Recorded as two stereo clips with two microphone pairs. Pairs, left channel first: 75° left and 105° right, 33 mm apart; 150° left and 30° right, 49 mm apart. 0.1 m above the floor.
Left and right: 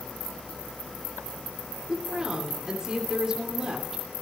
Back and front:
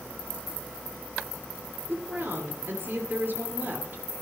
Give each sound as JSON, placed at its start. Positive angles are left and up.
{"t": 1.9, "sound": "a woman speaking", "azimuth_deg": -45, "distance_m": 2.5}